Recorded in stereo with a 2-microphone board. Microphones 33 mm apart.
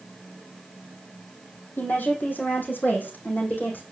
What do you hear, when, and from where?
1.8 s a woman speaking: 65° left (ahead or behind), 3.5 m; by 3.8 s 75° left (ahead or behind), 4 m